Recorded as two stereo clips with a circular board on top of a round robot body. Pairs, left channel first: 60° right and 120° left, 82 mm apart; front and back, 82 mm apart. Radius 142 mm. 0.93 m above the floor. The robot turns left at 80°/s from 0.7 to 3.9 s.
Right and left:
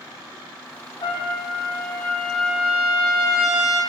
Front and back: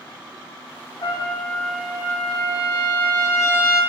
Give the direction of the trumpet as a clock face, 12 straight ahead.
1 o'clock.